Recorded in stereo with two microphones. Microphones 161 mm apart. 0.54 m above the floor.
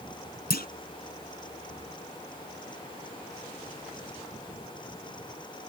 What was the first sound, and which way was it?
A clunk, 85° left.